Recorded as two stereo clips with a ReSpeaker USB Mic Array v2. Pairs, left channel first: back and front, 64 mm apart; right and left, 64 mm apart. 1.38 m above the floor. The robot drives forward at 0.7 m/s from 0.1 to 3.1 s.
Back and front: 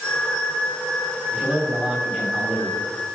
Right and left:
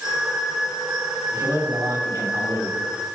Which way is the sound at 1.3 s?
75° left.